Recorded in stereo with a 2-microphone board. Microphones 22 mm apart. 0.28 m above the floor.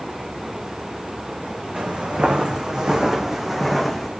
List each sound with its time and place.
1.8 s footsteps: 55° right (ahead or behind), 1.2 m; by 4.1 s 10° left (ahead or behind), 1.0 m